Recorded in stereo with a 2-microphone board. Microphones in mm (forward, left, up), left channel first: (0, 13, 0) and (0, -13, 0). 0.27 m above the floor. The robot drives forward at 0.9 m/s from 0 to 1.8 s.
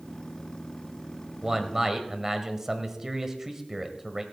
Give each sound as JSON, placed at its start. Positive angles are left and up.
{"t": 1.4, "sound": "a man speaking", "side_deg": -20, "distance_m": 1.4}